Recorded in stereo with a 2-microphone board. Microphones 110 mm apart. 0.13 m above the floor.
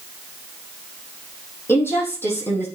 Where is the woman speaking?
20° left (ahead or behind), 4 m.